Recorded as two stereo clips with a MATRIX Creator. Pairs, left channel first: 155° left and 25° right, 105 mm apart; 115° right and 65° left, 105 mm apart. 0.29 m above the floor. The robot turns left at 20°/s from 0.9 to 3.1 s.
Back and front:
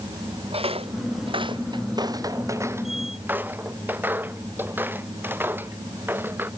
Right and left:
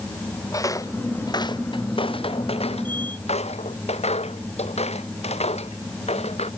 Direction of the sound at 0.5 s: 55° right.